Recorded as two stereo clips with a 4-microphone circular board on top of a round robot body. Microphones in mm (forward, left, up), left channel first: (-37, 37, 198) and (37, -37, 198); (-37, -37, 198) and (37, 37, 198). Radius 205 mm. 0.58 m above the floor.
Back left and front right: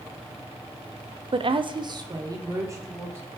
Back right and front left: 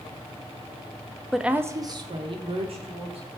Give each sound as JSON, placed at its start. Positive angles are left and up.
{"t": 1.3, "sound": "a woman speaking", "azimuth_deg": -50, "distance_m": 1.0}